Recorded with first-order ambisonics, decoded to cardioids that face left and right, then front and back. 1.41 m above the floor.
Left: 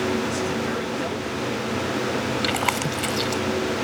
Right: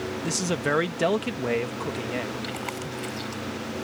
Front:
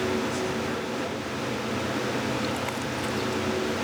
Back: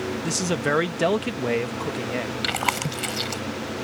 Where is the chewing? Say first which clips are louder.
Left 10 dB, back 5 dB; 140° left.